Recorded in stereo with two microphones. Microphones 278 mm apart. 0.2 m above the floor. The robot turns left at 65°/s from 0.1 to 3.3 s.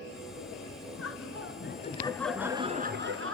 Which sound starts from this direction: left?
Laughter, at 1.0 s.